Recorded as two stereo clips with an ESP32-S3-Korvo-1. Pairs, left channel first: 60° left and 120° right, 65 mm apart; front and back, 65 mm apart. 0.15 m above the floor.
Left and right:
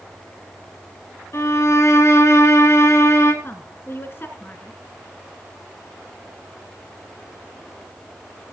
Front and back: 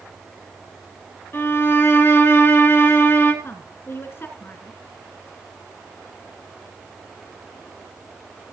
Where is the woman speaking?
30° left, 2 m.